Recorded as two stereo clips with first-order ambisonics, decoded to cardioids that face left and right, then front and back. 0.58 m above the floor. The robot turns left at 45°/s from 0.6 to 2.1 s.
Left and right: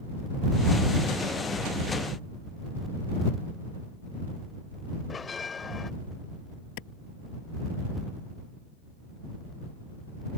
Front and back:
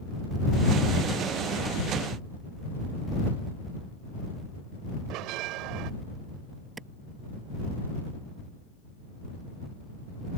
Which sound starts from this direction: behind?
A bell, at 5.1 s.